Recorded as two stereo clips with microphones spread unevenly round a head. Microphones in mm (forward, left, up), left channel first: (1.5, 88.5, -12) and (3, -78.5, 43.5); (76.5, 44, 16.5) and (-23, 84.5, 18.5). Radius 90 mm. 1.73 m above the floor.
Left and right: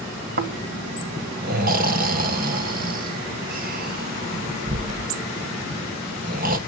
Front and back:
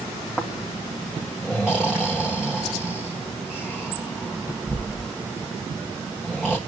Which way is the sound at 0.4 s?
115° right.